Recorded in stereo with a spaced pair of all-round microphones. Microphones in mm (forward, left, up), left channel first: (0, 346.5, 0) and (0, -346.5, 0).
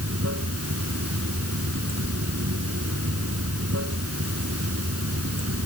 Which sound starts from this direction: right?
Running water, at 0.0 s.